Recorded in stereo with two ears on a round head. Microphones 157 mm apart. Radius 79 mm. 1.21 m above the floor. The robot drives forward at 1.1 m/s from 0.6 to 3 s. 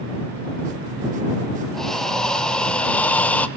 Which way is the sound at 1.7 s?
5° left (ahead or behind).